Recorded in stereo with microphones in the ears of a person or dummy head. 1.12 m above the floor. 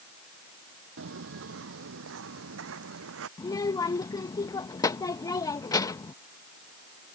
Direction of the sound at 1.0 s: 60° right (ahead or behind).